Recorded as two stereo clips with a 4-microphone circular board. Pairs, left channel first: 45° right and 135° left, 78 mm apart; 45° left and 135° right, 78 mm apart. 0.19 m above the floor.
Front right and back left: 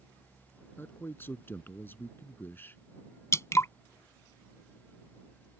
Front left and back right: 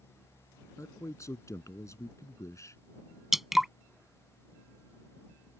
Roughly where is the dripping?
Ahead right.